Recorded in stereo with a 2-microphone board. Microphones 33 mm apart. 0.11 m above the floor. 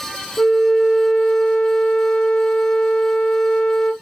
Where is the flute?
20° left (ahead or behind), 1.2 m.